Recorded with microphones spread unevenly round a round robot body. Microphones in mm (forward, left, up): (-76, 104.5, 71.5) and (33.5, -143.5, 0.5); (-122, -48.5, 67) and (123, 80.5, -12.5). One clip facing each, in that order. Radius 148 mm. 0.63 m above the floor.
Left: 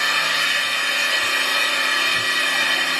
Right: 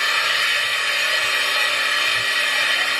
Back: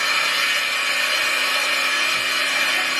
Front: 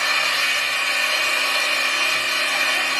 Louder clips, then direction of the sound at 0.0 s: Left 1 dB, even; 130° left.